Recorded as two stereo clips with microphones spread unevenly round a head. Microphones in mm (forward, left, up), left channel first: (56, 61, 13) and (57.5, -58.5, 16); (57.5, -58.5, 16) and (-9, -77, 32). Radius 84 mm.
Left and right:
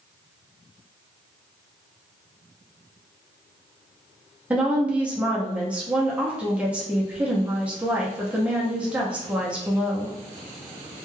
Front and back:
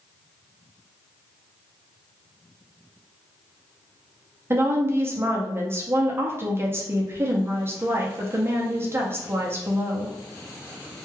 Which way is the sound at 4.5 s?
160° right.